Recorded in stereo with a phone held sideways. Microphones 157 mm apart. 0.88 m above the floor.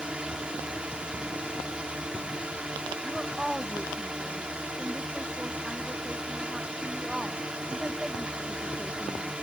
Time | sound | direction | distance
0.0 | a drone | 5° right (ahead or behind) | ?
3.0 | a woman speaking | 5° right (ahead or behind) | ?